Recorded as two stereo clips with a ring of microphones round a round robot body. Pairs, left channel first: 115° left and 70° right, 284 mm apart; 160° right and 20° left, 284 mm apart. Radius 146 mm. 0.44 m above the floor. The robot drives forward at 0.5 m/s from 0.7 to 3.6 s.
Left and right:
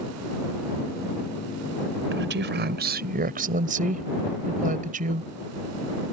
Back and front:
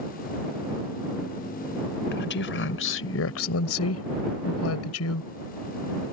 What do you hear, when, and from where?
2.1 s a woman speaking: 110° right; by 5.3 s 125° right